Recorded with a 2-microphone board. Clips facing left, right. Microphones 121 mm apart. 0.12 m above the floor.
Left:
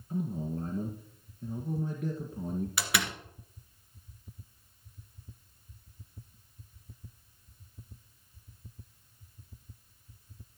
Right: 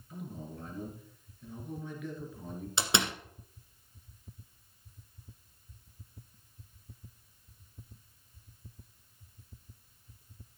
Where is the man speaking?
35° left (ahead or behind), 1.8 m.